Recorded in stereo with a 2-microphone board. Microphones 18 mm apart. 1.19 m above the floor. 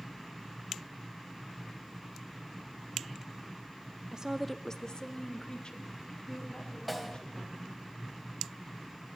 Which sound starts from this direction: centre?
A snare drum, at 6.9 s.